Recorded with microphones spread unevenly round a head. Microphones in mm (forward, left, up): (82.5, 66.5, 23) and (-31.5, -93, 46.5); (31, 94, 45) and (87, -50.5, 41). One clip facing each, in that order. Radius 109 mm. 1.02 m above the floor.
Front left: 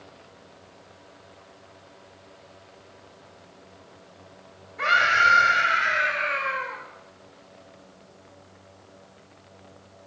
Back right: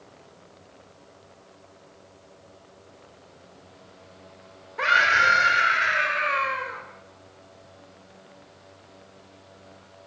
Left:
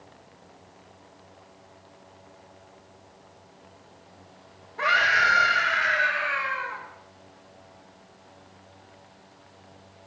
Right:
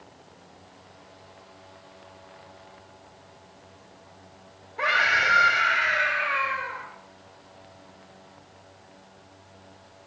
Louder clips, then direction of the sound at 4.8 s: Back right 1 dB, left 1 dB; 145° right.